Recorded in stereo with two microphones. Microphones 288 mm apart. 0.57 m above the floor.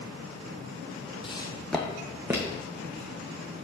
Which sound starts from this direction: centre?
Footsteps, at 1.2 s.